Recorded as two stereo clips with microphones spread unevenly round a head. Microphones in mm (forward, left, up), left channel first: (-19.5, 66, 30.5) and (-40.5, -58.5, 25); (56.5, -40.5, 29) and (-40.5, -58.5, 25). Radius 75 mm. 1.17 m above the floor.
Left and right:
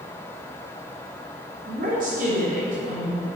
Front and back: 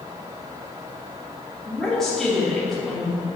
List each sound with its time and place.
1.6 s a woman speaking: 75° right, 3 m